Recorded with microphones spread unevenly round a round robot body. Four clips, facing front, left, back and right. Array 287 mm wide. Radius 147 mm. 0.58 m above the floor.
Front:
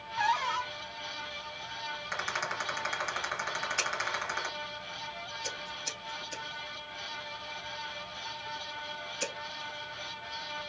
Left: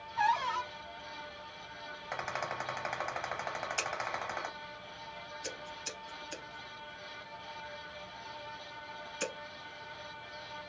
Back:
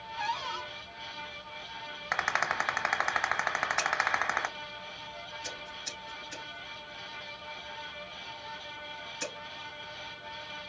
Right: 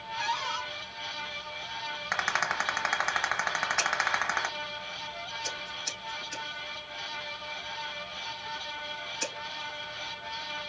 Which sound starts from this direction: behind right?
A rattle, at 2.1 s.